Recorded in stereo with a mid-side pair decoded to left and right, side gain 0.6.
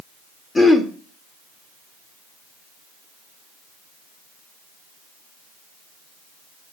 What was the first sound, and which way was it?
Throat clearing, 20° left.